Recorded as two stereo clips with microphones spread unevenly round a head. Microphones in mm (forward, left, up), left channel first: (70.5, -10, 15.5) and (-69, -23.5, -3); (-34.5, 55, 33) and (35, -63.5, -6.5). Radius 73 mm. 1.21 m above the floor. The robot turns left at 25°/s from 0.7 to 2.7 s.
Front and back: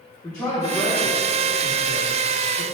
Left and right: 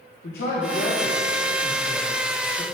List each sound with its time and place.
0.2 s a man speaking: 90° left, 1.2 m; by 2.6 s 40° left, 1.2 m